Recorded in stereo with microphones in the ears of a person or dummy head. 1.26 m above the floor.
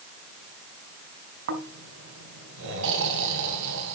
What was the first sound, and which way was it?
Snoring, 70° right (ahead or behind).